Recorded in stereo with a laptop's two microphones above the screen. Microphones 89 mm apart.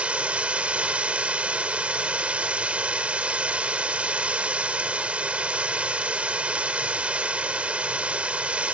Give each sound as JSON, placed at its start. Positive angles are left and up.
{"t": 0.0, "sound": "running water", "side_deg": -15}